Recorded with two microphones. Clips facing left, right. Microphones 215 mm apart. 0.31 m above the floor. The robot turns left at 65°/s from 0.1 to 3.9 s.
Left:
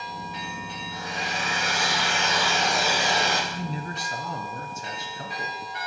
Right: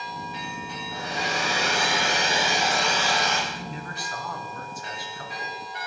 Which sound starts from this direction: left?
A man speaking, at 3.5 s.